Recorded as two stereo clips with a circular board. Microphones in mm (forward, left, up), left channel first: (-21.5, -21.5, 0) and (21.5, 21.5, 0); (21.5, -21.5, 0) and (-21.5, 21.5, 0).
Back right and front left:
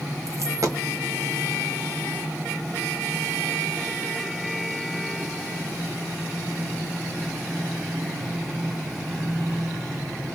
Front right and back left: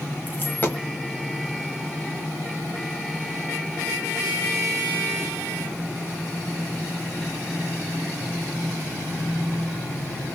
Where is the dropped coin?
15° left, 1.2 m.